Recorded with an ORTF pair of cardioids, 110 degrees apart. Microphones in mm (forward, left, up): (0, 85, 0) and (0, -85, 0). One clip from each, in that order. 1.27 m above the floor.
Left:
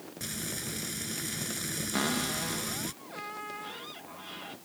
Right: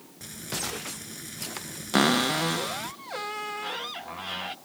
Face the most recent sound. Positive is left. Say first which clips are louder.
# right 10 dB
turn(degrees=-55)